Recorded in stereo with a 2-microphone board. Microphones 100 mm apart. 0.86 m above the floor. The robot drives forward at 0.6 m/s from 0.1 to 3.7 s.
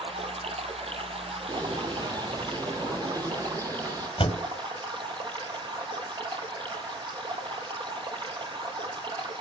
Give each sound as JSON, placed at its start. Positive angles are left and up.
{"t": 0.0, "sound": "running water", "side_deg": -70, "distance_m": 2.5}
{"t": 1.5, "sound": "a bird", "side_deg": -45, "distance_m": 6.0}
{"t": 4.2, "sound": "a door slam", "side_deg": 60, "distance_m": 3.0}